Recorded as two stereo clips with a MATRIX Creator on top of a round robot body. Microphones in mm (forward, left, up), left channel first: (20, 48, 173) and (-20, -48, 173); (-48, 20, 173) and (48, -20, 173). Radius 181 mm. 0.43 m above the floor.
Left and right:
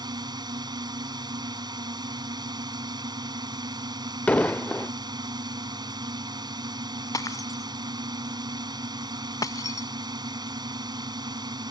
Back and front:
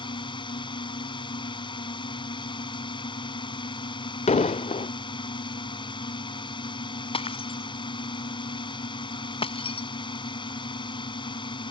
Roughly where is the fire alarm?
I don't hear a fire alarm.